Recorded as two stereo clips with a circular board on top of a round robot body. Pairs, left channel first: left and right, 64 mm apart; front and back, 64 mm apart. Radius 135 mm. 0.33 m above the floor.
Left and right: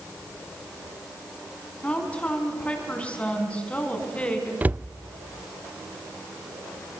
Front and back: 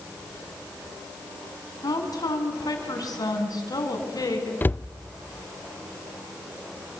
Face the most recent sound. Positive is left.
turn(degrees=-40)